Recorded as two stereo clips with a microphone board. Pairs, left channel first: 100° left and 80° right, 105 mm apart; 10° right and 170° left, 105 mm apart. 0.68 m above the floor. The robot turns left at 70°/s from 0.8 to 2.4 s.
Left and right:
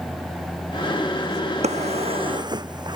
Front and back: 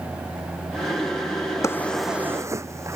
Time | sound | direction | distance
1.6 | a drawer | 75° right | ?